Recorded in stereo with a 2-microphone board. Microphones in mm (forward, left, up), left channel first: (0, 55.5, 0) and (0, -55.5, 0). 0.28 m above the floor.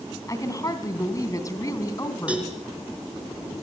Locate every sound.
0.3 s a woman speaking: 30° left (ahead or behind), 3 m
2.3 s a cowbell: 10° right (ahead or behind), 4 m